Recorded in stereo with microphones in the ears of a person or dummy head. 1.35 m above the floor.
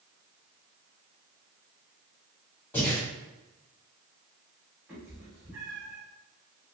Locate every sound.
2.7 s breathing: 10° left (ahead or behind), 1.8 m
4.9 s a cat meowing: centre (ahead or behind), 1.8 m